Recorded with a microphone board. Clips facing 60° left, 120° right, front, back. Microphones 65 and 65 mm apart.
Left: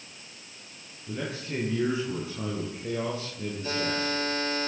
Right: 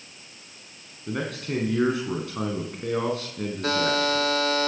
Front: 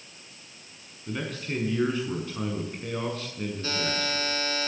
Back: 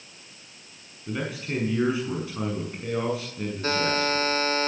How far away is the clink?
No clink in this recording.